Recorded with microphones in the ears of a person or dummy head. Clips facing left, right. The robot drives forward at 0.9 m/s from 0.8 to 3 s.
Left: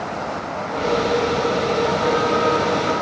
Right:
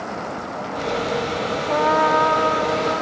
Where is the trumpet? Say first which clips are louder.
Even; 85° right, 0.7 m; by 3.0 s 30° right (ahead or behind), 1.3 m.